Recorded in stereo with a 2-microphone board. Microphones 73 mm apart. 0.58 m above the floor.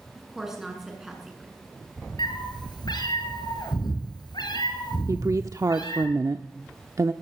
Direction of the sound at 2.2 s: 90° left.